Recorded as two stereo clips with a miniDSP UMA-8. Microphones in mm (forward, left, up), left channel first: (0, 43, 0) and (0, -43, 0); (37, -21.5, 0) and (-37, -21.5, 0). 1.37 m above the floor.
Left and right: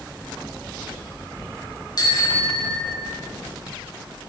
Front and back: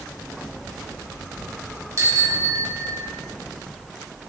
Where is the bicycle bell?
130° left, 6 m; by 3.2 s 120° left, 5.5 m.